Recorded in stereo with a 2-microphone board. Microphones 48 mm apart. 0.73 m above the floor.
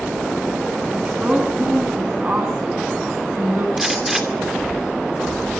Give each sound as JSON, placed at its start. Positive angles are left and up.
{"t": 0.9, "sound": "a woman speaking", "side_deg": -20, "distance_m": 7.0}
{"t": 3.8, "sound": "a gunshot", "side_deg": -5, "distance_m": 2.5}